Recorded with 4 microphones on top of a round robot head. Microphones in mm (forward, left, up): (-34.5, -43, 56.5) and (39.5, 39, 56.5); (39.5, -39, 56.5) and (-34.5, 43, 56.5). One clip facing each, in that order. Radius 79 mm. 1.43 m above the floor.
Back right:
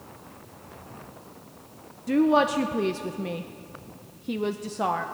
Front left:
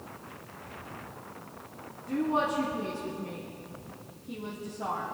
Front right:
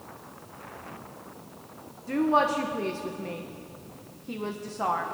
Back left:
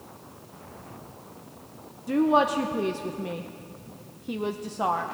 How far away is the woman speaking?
About 0.7 m.